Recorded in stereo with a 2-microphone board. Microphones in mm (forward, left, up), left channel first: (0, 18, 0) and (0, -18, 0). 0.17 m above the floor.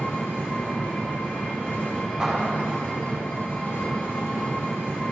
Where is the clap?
20° right (ahead or behind), 4.5 m.